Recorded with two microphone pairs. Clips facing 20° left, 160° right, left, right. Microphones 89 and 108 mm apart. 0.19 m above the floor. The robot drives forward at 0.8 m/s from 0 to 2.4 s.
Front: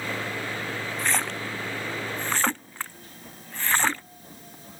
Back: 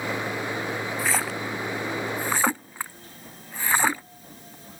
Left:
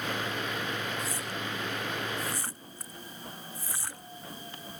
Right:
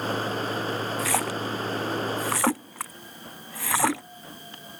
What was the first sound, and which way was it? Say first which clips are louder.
A splash: even, right 9 dB; 75° right.